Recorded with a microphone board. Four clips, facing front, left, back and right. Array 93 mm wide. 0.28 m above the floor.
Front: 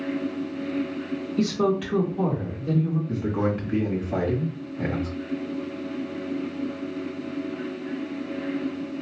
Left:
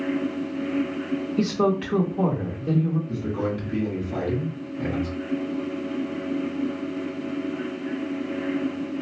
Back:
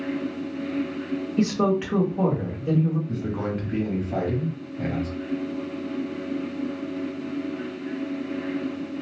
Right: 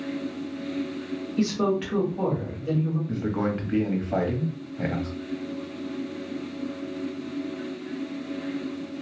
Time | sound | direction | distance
1.4 | a woman speaking | 170° left | 1.4 m
3.1 | a man speaking | 70° right | 1.3 m